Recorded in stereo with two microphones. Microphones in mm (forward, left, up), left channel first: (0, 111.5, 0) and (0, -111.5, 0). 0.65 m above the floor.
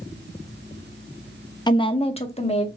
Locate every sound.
1.7 s a woman speaking: 20° left (ahead or behind), 0.5 m; by 2.7 s 30° left (ahead or behind), 1.1 m